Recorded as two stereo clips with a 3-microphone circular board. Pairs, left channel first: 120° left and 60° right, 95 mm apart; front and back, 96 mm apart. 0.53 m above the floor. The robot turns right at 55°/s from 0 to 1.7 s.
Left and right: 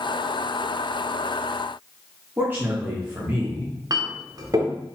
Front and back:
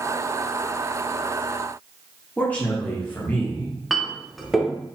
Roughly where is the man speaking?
Ahead right.